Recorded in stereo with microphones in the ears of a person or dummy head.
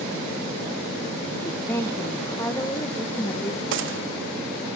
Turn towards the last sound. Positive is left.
turn(degrees=-60)  # may be behind; listen again after turning